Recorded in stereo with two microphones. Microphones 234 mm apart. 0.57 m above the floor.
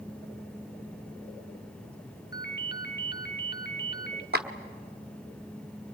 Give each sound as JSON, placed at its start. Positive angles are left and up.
{"t": 2.3, "sound": "a ringtone", "side_deg": 45, "distance_m": 1.4}
{"t": 4.3, "sound": "a clap", "side_deg": -45, "distance_m": 1.2}